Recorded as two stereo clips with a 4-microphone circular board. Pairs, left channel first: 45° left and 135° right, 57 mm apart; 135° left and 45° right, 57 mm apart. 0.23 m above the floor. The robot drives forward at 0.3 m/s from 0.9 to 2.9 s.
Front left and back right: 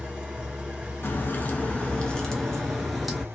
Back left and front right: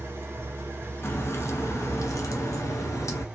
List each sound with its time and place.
0.0 s an engine running: 70° right, 1.1 m; by 3.4 s 115° right, 1.1 m
1.0 s a crack: 95° left, 0.6 m; by 3.2 s 135° left, 0.9 m